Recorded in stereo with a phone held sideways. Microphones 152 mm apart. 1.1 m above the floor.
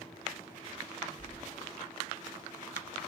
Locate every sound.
1.2 s keys jangling: 55° left (ahead or behind), 2.5 m